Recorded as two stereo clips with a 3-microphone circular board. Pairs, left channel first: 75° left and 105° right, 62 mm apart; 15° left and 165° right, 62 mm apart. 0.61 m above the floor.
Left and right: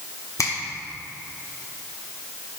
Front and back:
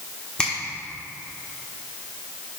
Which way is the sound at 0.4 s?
85° left.